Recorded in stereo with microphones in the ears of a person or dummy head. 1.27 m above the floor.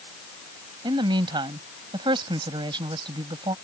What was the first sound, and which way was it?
A woman speaking, 25° right (ahead or behind).